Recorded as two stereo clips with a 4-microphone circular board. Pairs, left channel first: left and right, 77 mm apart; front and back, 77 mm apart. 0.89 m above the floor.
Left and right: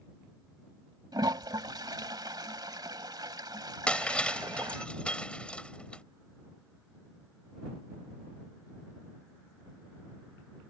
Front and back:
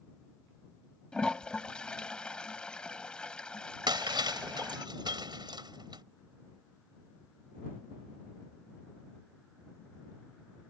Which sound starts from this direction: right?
A toilet flushing, at 1.1 s.